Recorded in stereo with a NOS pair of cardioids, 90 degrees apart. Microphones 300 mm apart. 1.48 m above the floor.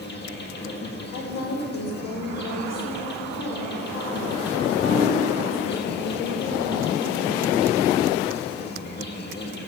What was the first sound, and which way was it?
An insect, 35° left.